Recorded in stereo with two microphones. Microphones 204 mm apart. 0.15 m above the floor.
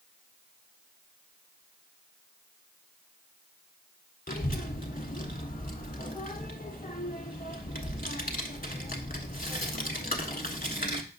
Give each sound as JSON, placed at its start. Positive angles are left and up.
{"t": 4.3, "sound": "a child speaking", "side_deg": 45, "distance_m": 1.0}